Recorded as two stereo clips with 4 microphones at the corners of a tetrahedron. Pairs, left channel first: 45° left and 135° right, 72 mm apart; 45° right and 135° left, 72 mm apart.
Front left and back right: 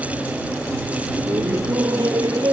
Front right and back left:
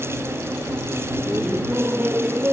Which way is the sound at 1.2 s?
160° right.